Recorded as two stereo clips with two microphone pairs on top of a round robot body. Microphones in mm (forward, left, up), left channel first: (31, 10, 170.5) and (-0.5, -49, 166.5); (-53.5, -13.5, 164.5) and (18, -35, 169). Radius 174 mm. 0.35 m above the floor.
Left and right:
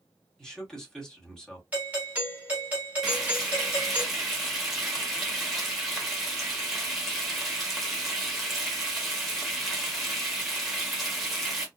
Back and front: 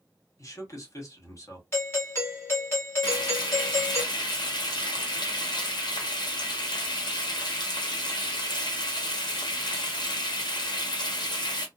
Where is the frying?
160° left, 1.3 m.